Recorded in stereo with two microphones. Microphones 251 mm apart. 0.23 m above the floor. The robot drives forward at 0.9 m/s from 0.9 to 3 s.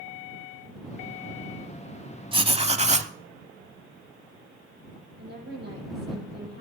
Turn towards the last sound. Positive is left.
turn(degrees=-40)  # may be behind; listen again after turning